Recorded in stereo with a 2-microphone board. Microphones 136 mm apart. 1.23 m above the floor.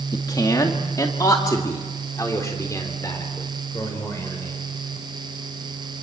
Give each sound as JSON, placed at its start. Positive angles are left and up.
{"t": 0.1, "sound": "a man speaking", "side_deg": 30, "distance_m": 1.8}